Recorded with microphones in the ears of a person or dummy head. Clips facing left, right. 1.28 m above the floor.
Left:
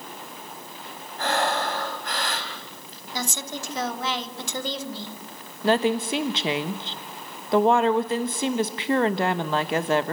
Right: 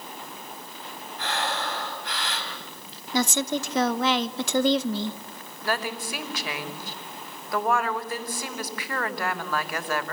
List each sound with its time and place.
1.2 s breathing: 40° left (ahead or behind), 4 m
3.1 s a woman speaking: 55° right (ahead or behind), 1.3 m
5.6 s a woman speaking: 25° left (ahead or behind), 1.1 m